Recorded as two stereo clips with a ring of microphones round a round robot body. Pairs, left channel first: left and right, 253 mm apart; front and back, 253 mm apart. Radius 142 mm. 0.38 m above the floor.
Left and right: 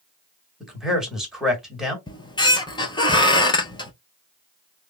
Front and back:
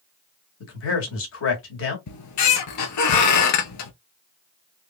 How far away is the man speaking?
About 2 m.